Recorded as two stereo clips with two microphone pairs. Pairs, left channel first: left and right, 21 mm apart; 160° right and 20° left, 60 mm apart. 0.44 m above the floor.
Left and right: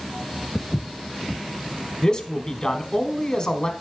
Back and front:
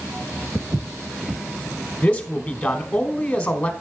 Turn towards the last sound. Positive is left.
turn(degrees=130)